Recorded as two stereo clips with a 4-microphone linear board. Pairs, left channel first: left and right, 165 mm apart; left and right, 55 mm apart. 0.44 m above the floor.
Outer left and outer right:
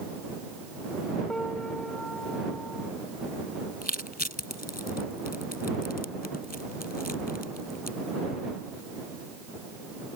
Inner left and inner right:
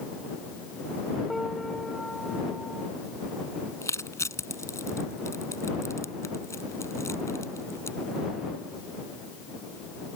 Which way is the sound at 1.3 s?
5° left (ahead or behind).